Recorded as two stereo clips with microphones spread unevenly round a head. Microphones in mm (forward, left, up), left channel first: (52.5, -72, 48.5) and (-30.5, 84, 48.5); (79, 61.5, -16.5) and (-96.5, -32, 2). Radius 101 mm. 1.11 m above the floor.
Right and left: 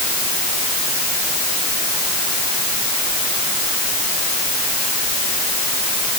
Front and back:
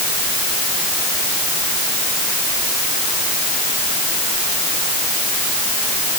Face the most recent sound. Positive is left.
No sound to turn to.